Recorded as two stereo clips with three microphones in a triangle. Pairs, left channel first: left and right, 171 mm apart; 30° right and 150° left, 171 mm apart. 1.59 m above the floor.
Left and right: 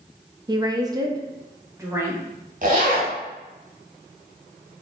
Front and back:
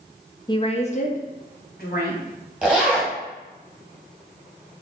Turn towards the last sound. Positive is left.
turn(degrees=-125)